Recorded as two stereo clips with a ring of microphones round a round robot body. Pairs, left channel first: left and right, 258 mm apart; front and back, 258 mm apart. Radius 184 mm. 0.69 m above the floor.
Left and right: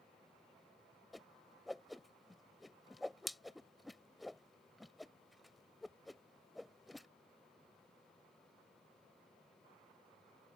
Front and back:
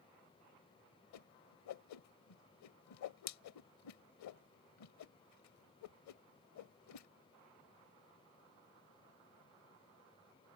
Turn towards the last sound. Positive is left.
turn(degrees=0)